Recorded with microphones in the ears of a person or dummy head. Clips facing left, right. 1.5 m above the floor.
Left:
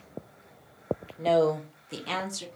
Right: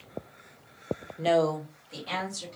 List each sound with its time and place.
1.2 s a woman speaking: 20° right (ahead or behind), 0.6 m; by 2.5 s 75° left (ahead or behind), 1.3 m